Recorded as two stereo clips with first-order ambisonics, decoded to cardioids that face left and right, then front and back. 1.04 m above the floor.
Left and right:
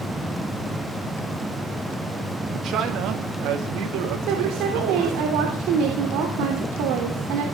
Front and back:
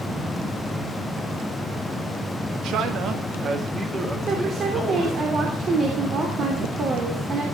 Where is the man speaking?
140° right, 1.9 m; by 5.2 s 90° right, 3.5 m.